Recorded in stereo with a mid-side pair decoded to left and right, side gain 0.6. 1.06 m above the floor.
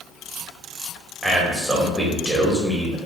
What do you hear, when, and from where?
1.2 s a man speaking: straight ahead, 1.3 m